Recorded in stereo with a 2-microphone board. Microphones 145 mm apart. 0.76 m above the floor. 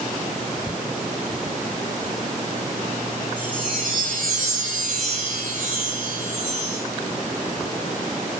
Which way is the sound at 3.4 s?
80° right.